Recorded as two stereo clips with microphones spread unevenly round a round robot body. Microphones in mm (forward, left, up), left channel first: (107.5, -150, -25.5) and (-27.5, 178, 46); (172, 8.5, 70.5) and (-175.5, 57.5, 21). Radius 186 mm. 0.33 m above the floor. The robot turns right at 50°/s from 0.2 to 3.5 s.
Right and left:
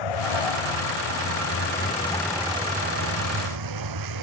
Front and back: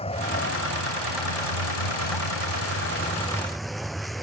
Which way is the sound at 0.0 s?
85° right.